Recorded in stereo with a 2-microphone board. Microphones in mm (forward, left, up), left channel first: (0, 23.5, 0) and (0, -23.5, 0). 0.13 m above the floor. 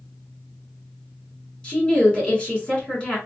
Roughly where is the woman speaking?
Left.